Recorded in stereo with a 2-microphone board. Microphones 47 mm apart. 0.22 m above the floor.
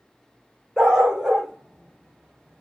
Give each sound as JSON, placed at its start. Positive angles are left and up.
{"t": 0.8, "sound": "a dog barking", "side_deg": -15, "distance_m": 4.5}